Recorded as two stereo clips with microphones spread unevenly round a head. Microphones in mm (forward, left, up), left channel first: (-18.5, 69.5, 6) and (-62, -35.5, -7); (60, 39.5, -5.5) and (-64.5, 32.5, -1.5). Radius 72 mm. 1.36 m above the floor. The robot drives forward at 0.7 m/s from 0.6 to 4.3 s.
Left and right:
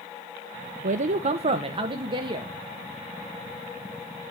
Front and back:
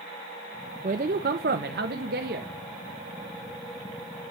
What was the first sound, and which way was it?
A man speaking, 130° right.